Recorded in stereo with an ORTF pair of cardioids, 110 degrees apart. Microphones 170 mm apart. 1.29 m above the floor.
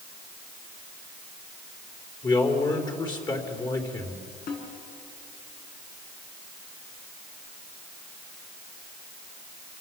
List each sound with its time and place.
2.2 s a man speaking: 25° left, 4 m
4.5 s a snare drum: 65° left, 8 m